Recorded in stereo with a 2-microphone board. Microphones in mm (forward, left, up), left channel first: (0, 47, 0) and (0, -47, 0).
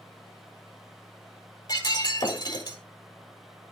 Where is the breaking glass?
45° left (ahead or behind), 1.7 m.